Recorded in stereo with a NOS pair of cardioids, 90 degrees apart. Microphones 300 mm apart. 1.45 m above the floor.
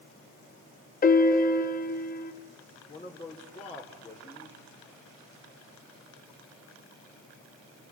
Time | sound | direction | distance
1.0 | a piano | 30° left | 1.3 m
2.9 | a man speaking | 20° left | 4 m